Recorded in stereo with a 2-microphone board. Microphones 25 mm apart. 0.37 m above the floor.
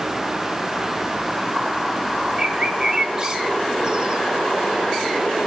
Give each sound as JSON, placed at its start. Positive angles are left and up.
{"t": 2.4, "sound": "a bird", "side_deg": -30, "distance_m": 1.0}